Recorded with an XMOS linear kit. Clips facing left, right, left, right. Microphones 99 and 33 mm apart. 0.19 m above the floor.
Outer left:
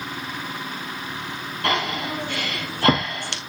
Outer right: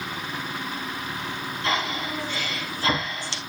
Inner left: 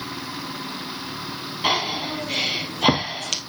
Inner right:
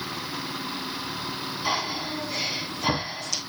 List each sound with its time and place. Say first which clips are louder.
1.6 s breathing: outer left 3 dB, inner left 6 dB; 65° left (ahead or behind), 1.9 m